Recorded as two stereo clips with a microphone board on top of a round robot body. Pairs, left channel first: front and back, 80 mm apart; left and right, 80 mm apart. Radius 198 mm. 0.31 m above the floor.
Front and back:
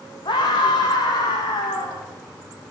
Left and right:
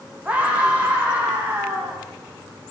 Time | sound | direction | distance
0.2 | a scream | 20° right | 4.5 m